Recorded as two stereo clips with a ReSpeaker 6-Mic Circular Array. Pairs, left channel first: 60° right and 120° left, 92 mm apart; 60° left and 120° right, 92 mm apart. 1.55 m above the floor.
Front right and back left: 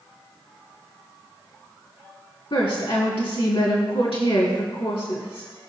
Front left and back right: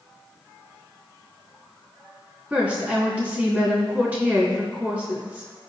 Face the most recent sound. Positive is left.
turn(degrees=-50)